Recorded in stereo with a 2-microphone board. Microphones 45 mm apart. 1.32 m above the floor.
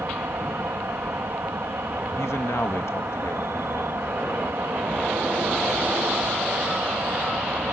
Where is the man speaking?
85° left.